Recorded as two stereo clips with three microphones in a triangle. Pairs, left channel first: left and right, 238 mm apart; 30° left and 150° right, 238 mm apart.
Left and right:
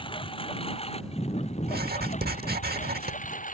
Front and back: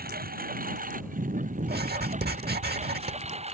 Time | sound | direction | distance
0.0 | a lawn mower | 160° left | ?
1.6 | writing | 120° right | ?